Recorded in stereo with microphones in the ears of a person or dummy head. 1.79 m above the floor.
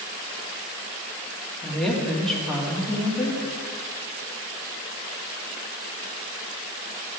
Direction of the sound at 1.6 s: Centre (ahead or behind).